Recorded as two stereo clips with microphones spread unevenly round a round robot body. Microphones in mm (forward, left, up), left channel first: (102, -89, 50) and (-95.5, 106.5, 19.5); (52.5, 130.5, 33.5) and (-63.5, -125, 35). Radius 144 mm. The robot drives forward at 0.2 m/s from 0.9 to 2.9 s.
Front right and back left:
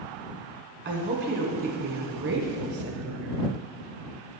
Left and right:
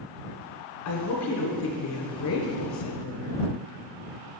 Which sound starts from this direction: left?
A woman speaking, at 0.8 s.